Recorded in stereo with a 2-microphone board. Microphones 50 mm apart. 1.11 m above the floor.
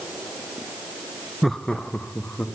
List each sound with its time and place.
1.4 s laughter: centre (ahead or behind), 0.6 m; by 2.5 s 40° left (ahead or behind), 1.7 m